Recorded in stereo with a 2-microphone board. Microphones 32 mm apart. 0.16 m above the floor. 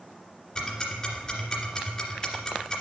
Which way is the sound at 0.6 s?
25° left (ahead or behind).